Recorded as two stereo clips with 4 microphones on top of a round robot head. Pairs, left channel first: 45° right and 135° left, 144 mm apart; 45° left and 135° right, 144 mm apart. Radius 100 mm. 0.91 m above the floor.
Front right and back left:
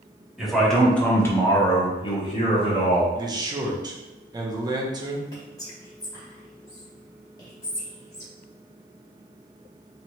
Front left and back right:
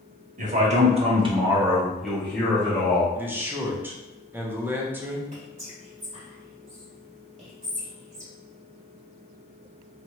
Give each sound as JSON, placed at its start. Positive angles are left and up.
{"t": 0.4, "sound": "a man speaking", "azimuth_deg": -135, "distance_m": 1.2}
{"t": 3.1, "sound": "a man speaking", "azimuth_deg": 160, "distance_m": 0.7}
{"t": 5.3, "sound": "whispering", "azimuth_deg": -105, "distance_m": 2.0}